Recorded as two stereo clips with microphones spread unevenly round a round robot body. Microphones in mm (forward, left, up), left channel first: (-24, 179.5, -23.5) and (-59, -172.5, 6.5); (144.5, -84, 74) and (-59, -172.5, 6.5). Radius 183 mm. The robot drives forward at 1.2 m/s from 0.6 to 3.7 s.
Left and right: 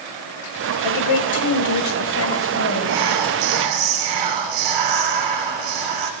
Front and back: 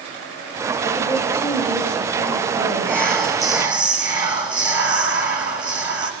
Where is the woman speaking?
95° left, 2 m; by 3.0 s 145° left, 3.5 m.